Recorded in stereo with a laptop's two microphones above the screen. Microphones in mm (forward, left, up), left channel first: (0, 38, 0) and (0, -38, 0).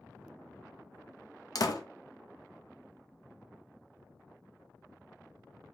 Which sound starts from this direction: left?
A door slam, at 1.6 s.